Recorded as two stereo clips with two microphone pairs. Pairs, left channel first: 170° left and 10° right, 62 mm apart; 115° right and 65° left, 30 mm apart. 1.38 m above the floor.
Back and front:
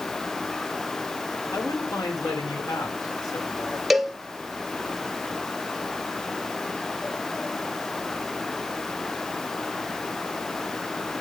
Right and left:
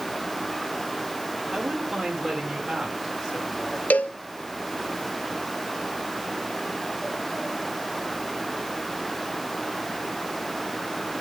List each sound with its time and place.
1.5 s a man speaking: 155° left, 3.5 m; by 3.8 s 150° left, 5 m
3.9 s a cowbell: 95° right, 0.8 m